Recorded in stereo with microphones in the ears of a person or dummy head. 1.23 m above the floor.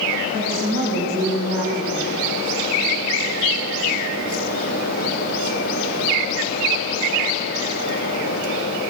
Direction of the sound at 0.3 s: 70° left (ahead or behind).